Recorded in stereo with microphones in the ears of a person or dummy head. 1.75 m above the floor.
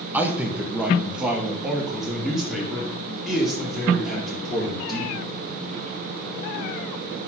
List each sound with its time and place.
0.1 s a man speaking: 10° right (ahead or behind), 1.5 m; by 5.2 s centre (ahead or behind), 5.5 m